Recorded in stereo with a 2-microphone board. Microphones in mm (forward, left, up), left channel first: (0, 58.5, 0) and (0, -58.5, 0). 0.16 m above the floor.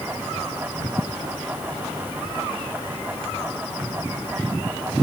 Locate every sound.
Only background noise.